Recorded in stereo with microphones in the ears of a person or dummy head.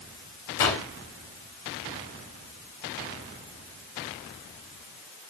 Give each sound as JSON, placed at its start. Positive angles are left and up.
{"t": 0.6, "sound": "a gunshot", "side_deg": 15, "distance_m": 1.3}